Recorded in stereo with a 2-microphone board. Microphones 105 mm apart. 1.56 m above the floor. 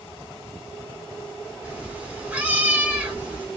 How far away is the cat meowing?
About 1.2 m.